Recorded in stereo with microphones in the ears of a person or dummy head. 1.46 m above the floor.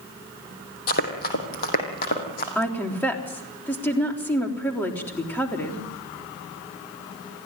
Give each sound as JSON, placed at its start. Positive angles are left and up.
{"t": 0.9, "sound": "running footsteps", "side_deg": 50, "distance_m": 3.0}
{"t": 2.5, "sound": "a woman speaking", "side_deg": 10, "distance_m": 3.5}